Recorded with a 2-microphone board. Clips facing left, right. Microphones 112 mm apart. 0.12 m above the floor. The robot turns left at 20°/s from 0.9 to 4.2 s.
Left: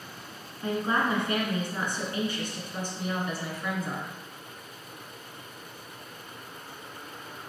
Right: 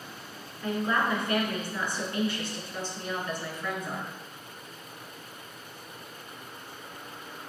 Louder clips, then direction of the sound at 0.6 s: Left 1 dB; 25° left (ahead or behind).